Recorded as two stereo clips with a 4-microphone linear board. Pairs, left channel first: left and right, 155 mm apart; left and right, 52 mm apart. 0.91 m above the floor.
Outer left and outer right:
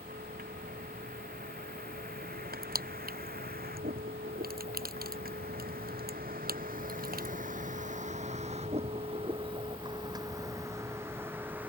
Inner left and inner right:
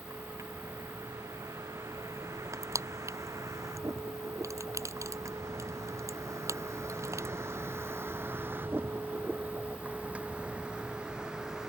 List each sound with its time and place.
0.0 s a vehicle: 75° right (ahead or behind); by 11.7 s 10° right (ahead or behind)
2.5 s crushing: 80° right